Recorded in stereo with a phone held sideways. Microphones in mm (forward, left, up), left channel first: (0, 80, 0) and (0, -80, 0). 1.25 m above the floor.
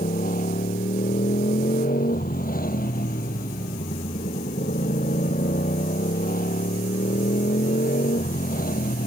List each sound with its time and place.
0.0 s a motorcycle: 65° left (ahead or behind)